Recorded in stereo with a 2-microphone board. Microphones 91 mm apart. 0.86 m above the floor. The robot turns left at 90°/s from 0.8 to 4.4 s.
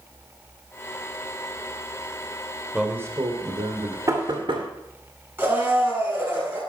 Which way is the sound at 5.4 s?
25° right (ahead or behind).